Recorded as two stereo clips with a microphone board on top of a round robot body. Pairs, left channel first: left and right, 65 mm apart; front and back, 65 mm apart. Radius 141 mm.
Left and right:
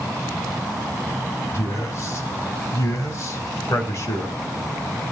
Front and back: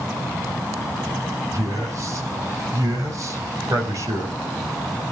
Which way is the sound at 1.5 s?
140° left.